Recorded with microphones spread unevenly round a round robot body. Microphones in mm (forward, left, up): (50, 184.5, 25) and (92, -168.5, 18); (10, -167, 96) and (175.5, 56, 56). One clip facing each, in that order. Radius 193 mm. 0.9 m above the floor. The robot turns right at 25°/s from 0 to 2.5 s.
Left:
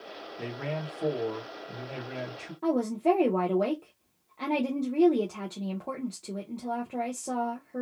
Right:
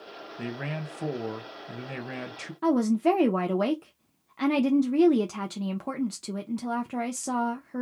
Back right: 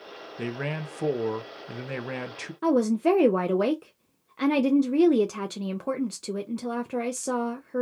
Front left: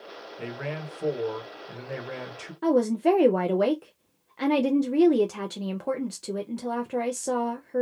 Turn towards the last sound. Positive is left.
turn(degrees=-35)